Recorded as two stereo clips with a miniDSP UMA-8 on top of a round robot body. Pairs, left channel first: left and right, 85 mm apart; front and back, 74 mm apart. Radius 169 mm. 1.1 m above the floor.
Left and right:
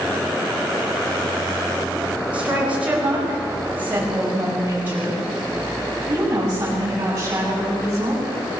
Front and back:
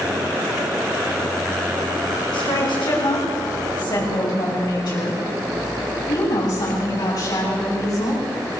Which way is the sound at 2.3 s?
15° right.